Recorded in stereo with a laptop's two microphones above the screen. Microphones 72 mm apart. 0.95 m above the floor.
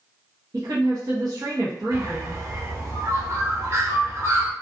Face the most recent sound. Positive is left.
turn(degrees=-45)  # may be behind; listen again after turning